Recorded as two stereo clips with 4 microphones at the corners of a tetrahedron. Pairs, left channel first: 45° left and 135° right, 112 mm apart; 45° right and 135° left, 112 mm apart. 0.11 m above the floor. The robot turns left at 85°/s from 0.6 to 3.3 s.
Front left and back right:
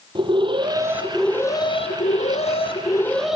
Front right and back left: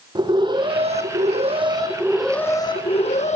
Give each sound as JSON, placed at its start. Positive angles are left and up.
{"t": 0.1, "sound": "an alarm", "azimuth_deg": 180, "distance_m": 4.5}